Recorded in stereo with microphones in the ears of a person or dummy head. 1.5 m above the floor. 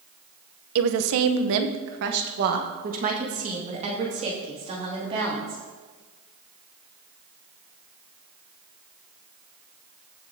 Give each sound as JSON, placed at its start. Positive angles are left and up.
{"t": 0.8, "sound": "a woman speaking", "side_deg": -75, "distance_m": 0.9}